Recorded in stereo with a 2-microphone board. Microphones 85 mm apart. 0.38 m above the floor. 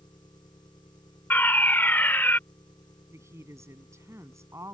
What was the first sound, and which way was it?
An engine running, 55° left (ahead or behind).